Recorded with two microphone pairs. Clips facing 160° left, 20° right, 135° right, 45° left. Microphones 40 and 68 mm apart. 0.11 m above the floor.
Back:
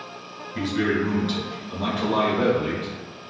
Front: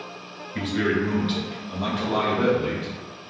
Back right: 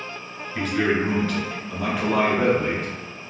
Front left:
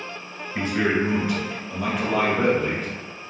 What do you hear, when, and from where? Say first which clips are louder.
0.6 s a man speaking: even, even; straight ahead, 1.5 m; by 2.9 s 170° right, 1.4 m